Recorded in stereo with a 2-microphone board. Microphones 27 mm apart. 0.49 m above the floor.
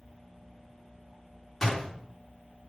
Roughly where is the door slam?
Centre.